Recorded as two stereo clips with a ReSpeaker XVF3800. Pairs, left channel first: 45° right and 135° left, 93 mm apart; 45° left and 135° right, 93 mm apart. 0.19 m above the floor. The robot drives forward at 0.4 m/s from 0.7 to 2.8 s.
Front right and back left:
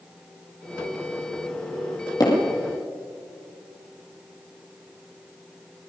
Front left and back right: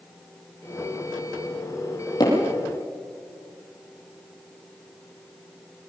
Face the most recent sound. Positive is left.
turn(degrees=0)